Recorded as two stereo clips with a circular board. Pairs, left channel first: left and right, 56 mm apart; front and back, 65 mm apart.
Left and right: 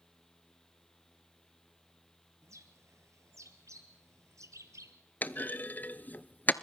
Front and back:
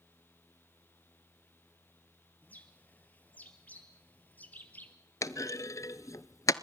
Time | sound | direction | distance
2.4 | a bird | 65° right | 1.4 m
5.2 | a clunk | 30° left | 0.6 m